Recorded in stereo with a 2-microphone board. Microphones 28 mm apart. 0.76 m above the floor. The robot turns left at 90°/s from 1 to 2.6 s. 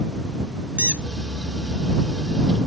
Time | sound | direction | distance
0.8 | a squeak | 55° right (ahead or behind) | ?